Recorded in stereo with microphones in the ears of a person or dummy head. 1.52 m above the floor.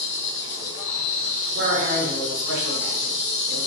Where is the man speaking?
65° right (ahead or behind), 0.9 m.